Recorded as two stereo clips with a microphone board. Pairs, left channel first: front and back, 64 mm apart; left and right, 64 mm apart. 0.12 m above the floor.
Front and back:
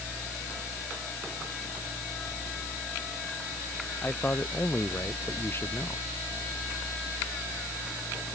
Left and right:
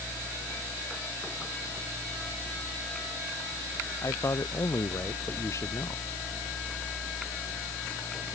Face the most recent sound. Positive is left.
turn(degrees=50)